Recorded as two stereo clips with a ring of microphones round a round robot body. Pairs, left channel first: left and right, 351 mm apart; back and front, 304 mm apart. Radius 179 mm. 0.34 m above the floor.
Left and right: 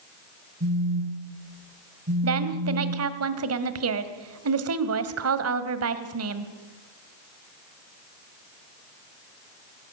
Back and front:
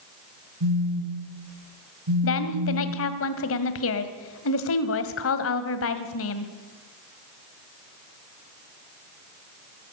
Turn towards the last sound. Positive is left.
turn(degrees=-135)